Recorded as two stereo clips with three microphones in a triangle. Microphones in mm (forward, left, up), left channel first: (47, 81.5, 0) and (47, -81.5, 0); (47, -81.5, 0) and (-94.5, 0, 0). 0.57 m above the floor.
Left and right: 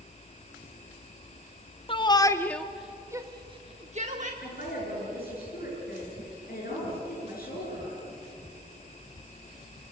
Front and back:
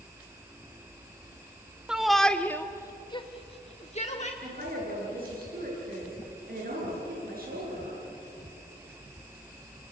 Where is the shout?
70° left, 1.0 m; by 4.3 s 65° right, 1.3 m.